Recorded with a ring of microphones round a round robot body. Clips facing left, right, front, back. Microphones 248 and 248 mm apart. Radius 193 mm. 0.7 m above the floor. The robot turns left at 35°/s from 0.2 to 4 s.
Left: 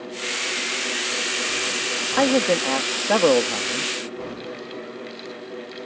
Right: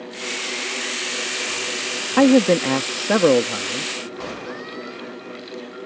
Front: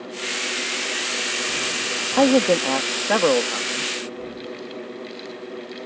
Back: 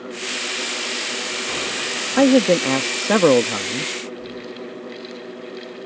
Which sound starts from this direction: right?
A man speaking, at 2.2 s.